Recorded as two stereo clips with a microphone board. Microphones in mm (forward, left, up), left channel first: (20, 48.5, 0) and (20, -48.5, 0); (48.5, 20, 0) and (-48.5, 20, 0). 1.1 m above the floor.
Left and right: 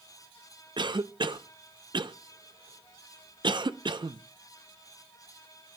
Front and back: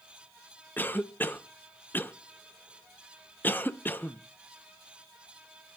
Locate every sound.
0.8 s a cough: 65° right, 0.7 m